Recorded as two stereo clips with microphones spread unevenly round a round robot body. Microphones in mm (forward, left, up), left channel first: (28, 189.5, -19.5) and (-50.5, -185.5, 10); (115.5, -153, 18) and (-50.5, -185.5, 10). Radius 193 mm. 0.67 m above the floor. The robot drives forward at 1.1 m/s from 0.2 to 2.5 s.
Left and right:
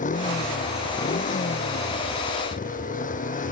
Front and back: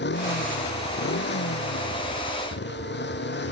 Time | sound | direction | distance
0.0 | a motorcycle | 5° left | ?